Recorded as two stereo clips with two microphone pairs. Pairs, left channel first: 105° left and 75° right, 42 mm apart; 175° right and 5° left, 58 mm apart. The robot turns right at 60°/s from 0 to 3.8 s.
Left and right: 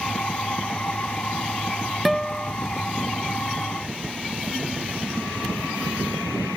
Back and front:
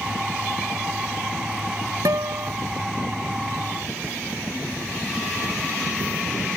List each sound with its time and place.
2.0 s a guitar: 15° left; by 2.5 s 40° left